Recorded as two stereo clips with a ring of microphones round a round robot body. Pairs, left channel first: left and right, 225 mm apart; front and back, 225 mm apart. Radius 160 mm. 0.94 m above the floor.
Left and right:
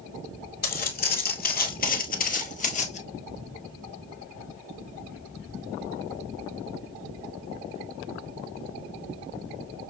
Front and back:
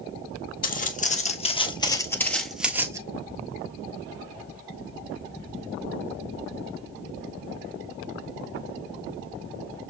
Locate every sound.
0.6 s footsteps: 45° left, 1.5 m; by 3.0 s 120° left, 1.0 m